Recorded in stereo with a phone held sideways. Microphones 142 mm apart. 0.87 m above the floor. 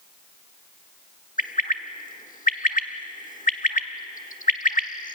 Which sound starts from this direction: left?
A bird, at 1.4 s.